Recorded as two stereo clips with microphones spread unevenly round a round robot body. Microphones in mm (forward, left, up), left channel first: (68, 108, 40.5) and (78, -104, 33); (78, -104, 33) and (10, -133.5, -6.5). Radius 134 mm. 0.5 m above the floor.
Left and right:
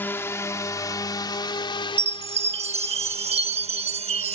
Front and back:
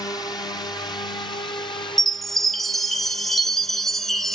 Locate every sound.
0.0 s a drone: 25° left; by 4.4 s 45° left
2.0 s a chime: 110° right